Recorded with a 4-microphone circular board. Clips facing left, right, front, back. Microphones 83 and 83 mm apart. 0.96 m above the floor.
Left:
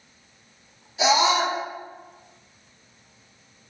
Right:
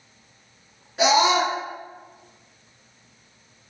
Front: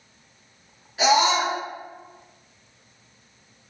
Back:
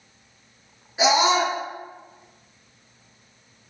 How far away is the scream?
About 2.0 m.